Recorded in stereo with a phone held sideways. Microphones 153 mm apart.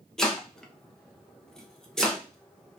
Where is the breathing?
No breathing in this recording.